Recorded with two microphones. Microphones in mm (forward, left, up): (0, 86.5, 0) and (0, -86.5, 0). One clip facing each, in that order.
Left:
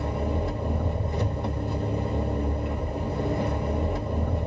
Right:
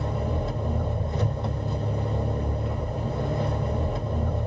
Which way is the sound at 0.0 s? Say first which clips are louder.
Left 1 dB; 10° left (ahead or behind).